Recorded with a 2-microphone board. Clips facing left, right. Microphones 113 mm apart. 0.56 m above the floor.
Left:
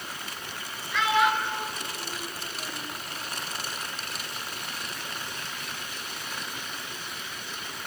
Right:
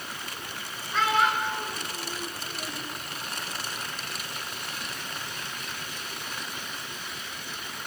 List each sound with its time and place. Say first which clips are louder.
0.9 s a child speaking: left 1 dB; 40° right (ahead or behind), 6 m; by 2.9 s 35° right (ahead or behind), 8 m